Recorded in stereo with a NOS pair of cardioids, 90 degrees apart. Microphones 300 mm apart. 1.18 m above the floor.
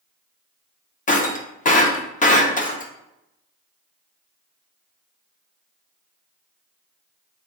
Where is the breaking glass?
25° left, 0.9 m.